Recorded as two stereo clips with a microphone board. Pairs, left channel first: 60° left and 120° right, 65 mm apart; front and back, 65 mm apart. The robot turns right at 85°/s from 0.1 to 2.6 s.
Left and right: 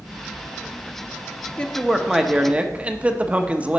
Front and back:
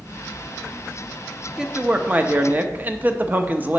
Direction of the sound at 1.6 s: 110° left.